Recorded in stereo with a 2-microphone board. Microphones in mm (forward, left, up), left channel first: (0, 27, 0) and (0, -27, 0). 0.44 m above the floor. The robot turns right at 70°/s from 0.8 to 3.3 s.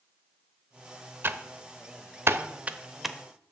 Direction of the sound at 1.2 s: 40° right (ahead or behind).